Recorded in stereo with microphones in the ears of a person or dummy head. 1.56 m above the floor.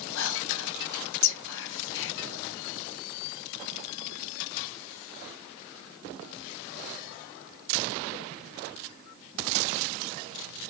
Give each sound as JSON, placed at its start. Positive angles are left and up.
{"t": 0.1, "sound": "whispering", "side_deg": 65, "distance_m": 1.1}